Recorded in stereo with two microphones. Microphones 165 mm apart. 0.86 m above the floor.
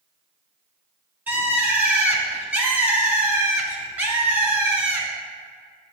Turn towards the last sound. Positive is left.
turn(degrees=-10)  # may be behind; listen again after turning